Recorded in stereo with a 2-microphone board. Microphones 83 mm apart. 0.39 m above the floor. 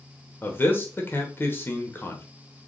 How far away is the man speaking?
About 0.9 m.